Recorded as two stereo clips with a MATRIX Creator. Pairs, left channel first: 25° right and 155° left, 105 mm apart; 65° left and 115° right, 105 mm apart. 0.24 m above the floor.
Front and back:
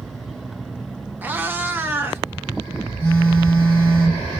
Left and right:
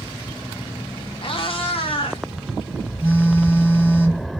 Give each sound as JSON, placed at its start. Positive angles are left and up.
{"t": 1.2, "sound": "a cat meowing", "azimuth_deg": 85, "distance_m": 0.5}
{"t": 3.0, "sound": "a phone buzzing", "azimuth_deg": 35, "distance_m": 1.7}